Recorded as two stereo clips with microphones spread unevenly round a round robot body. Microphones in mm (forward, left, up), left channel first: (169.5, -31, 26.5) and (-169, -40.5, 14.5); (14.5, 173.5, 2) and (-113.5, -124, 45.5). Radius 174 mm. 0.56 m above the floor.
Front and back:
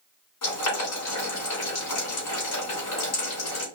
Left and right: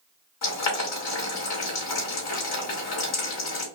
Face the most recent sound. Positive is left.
turn(degrees=50)